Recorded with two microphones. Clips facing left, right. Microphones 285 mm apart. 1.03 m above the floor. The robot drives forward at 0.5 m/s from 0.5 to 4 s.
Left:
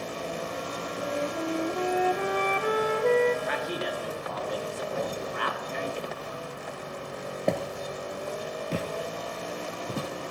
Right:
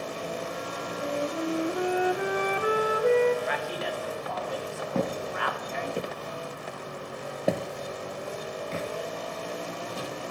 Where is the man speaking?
45° left (ahead or behind), 2.5 m; by 6.0 s 40° left (ahead or behind), 2.5 m.